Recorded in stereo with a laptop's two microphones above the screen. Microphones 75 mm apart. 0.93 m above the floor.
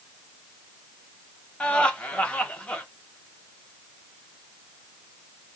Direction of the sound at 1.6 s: 15° left (ahead or behind).